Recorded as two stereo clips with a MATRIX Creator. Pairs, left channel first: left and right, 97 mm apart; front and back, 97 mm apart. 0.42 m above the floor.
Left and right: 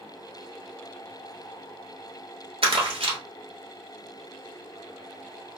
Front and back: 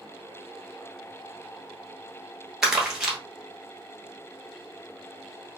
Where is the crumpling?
95° right, 1.1 m.